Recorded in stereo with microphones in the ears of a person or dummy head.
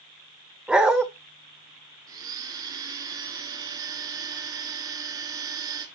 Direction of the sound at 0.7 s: Centre (ahead or behind).